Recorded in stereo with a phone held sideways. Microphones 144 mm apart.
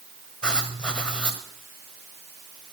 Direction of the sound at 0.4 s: 5° left (ahead or behind).